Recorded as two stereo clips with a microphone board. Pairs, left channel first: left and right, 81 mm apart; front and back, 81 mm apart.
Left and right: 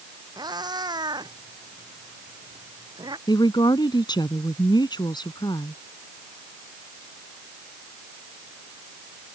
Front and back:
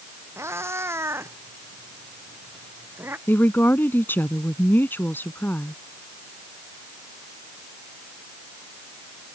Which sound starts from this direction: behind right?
A cat meowing, at 0.4 s.